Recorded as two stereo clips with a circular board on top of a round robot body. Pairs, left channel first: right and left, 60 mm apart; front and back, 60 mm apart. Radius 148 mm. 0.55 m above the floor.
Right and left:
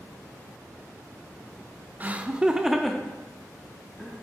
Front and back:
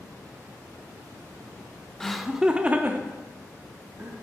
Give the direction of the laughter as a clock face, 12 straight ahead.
10 o'clock.